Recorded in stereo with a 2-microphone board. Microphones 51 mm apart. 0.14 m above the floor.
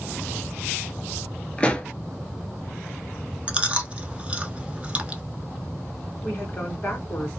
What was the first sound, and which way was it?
A pop, 20° left (ahead or behind).